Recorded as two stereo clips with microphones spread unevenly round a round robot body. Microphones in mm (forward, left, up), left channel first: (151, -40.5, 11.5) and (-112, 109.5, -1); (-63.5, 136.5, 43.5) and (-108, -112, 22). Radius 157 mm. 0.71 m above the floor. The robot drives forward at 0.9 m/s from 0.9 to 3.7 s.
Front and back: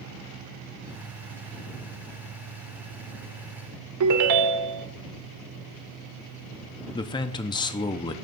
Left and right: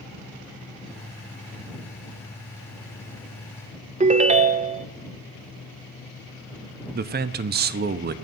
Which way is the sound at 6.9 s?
100° right.